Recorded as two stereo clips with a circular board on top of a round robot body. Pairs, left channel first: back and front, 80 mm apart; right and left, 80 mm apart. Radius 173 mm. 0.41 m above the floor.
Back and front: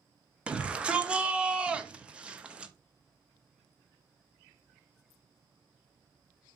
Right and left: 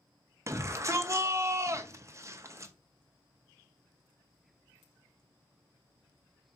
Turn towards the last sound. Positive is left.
turn(degrees=70)